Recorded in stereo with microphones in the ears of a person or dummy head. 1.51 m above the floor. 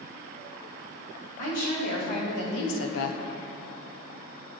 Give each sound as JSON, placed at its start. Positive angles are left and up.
{"t": 1.4, "sound": "a woman speaking", "side_deg": 45, "distance_m": 1.9}